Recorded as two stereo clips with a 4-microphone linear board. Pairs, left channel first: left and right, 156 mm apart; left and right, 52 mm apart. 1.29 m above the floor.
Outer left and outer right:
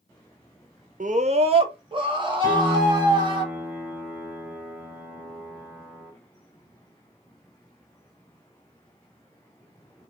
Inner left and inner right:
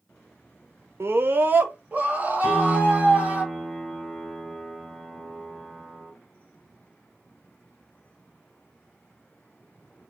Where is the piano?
5° right (ahead or behind), 2 m.